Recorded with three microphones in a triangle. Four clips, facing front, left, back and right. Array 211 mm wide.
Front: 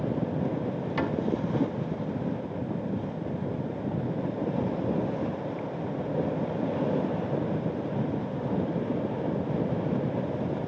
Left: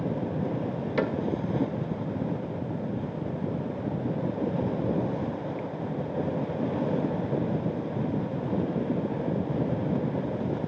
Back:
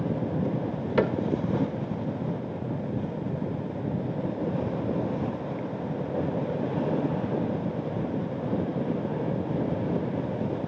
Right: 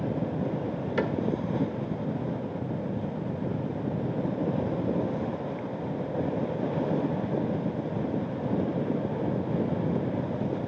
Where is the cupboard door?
170° left, 1.3 m.